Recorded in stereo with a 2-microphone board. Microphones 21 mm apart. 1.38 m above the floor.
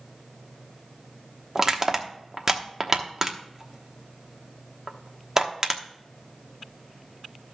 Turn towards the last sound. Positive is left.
turn(degrees=-25)  # may be behind; listen again after turning